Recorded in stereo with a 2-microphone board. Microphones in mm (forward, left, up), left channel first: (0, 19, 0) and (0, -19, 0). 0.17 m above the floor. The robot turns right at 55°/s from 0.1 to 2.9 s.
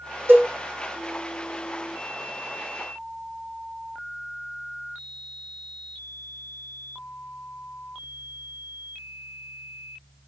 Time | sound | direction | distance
0.3 | a cowbell | 75° right (ahead or behind) | 4 m